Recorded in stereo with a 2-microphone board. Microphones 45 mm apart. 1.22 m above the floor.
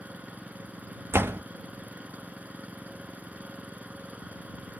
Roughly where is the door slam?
Right.